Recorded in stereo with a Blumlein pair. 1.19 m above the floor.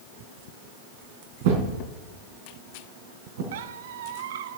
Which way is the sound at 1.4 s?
50° right.